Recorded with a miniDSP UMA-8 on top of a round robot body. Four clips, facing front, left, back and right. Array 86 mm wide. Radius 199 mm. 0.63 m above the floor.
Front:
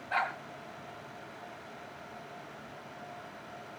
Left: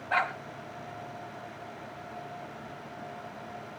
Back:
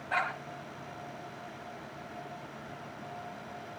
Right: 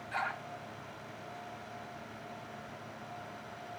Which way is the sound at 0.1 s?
105° left.